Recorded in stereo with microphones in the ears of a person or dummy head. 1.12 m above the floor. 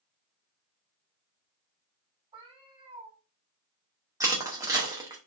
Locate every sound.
2.3 s a cat meowing: 25° right (ahead or behind), 1.9 m
4.2 s crushing: 10° right (ahead or behind), 0.8 m